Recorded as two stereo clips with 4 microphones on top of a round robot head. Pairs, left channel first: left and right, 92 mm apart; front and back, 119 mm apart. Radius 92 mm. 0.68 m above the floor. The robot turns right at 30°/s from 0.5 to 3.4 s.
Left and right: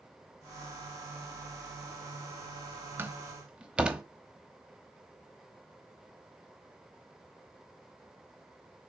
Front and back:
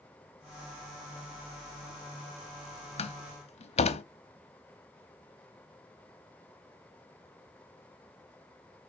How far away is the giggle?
No giggle in this recording.